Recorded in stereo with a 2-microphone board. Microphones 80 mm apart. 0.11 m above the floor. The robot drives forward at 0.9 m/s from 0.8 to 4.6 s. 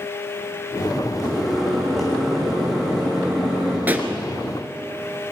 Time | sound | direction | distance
1.2 | a microwave | 5° left (ahead or behind) | 5 m
3.9 | a pop | 20° right (ahead or behind) | 1.5 m